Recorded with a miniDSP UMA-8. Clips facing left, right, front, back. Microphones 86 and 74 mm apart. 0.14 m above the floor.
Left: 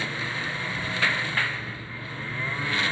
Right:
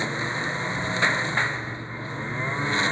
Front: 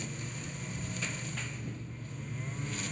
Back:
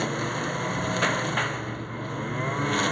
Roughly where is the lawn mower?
Behind.